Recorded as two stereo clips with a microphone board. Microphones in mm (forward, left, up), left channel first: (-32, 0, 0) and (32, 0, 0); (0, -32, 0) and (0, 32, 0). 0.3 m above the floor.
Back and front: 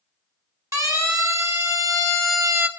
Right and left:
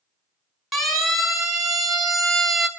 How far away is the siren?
About 4 m.